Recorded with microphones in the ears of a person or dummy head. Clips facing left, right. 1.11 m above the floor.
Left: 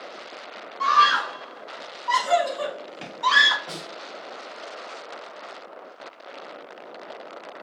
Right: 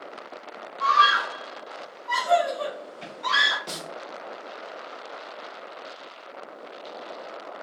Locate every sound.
0.8 s a scream: 85° left, 2.0 m
3.7 s a snare drum: 30° right (ahead or behind), 1.7 m